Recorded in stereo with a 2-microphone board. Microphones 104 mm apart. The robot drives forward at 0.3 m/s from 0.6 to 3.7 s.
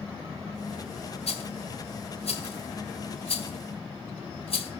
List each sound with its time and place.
1.3 s a rattle: 80° left, 2 m; by 4.7 s 70° left (ahead or behind), 2 m